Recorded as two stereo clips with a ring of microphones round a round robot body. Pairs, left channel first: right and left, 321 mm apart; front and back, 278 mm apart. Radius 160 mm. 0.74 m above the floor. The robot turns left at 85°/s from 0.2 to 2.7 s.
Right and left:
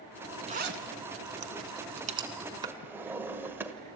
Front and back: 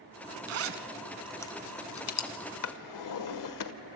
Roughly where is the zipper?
Behind.